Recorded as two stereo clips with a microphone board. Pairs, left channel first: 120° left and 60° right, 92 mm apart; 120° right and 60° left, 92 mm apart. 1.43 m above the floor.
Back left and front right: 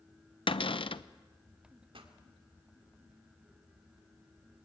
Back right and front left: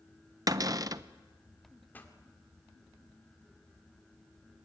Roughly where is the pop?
Ahead right.